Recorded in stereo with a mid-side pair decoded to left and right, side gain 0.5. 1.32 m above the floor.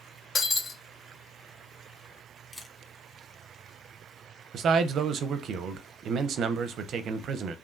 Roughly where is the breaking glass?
Ahead left.